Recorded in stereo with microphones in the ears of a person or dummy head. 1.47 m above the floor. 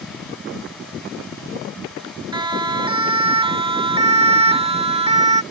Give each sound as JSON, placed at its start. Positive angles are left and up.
{"t": 2.3, "sound": "a siren", "side_deg": -25}